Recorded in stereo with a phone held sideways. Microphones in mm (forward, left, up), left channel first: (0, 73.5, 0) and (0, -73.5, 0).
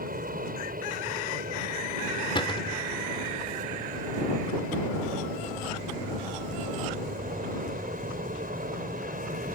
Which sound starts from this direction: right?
An aircraft, at 0.0 s.